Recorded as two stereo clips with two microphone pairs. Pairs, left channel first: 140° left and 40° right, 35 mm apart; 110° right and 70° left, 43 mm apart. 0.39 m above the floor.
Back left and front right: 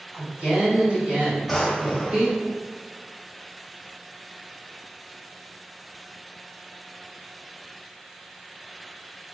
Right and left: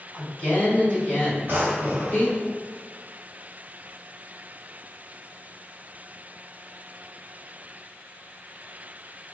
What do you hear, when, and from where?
0.1 s a woman speaking: 85° right, 1.7 m
1.5 s a drawer: 50° left, 0.8 m